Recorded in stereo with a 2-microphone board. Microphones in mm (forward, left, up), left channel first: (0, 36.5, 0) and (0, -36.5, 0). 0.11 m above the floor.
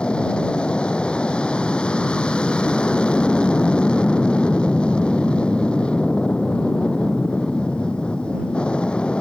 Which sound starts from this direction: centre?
An aircraft, at 0.0 s.